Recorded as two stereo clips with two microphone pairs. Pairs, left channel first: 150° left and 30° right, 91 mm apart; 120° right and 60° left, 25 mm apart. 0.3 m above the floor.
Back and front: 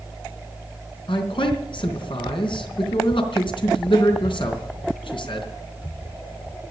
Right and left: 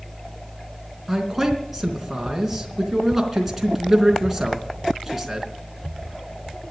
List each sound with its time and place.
1.1 s a man speaking: 135° left, 3.5 m